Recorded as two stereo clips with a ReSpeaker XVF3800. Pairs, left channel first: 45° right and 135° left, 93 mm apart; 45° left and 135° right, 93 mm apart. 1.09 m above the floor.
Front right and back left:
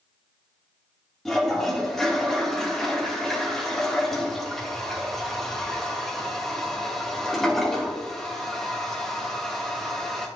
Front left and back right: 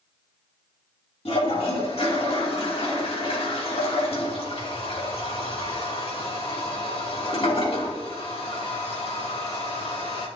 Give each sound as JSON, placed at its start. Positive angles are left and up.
{"t": 1.2, "sound": "a toilet flushing", "azimuth_deg": 40, "distance_m": 2.5}